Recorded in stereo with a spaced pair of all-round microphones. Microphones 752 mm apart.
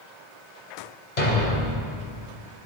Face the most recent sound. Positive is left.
turn(degrees=65)  # may be behind; listen again after turning